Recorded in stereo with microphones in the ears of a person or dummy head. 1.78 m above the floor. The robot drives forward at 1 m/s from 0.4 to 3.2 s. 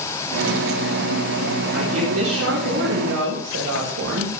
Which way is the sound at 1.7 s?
75° right (ahead or behind).